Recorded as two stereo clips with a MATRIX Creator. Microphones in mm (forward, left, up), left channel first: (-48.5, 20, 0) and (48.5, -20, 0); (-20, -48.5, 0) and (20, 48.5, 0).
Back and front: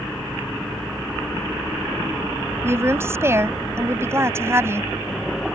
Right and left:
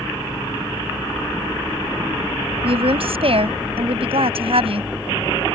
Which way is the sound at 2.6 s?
45° left.